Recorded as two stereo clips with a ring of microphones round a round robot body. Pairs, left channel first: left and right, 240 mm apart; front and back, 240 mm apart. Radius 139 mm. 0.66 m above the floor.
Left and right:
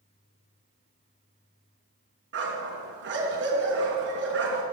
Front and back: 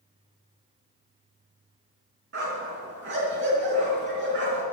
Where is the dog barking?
130° right, 4 m.